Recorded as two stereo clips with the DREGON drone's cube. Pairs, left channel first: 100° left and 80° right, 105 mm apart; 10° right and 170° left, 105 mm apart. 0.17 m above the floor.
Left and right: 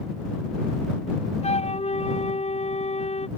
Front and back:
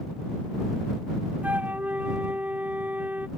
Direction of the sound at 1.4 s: 95° left.